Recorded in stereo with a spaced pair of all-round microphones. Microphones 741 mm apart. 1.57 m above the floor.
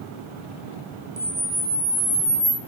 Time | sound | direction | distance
1.2 | a camera shutter | 25° right (ahead or behind) | 1.5 m